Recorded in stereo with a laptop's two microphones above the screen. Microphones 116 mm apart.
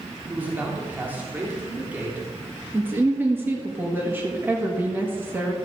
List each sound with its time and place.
0.3 s a man speaking: 15° right (ahead or behind), 3 m
2.7 s a woman speaking: 15° right (ahead or behind), 1.6 m